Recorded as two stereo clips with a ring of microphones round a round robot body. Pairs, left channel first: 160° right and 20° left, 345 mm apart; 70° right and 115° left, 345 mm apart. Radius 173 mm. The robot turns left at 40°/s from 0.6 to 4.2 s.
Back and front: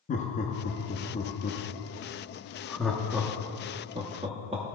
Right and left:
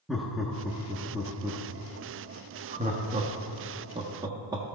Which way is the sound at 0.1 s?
160° right.